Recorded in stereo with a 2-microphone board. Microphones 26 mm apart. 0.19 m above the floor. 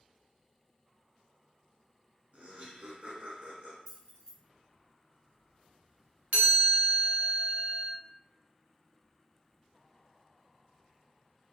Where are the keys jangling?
30° left (ahead or behind), 1.5 m.